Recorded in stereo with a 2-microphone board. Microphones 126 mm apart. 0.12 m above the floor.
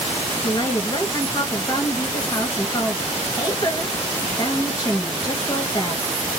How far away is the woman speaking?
About 2 m.